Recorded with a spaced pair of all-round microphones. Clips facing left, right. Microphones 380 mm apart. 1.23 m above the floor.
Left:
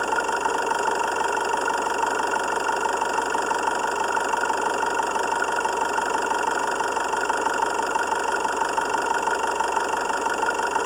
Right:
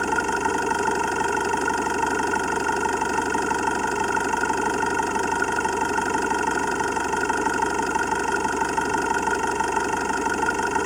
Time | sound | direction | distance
0.0 | an engine running | 35° right (ahead or behind) | ?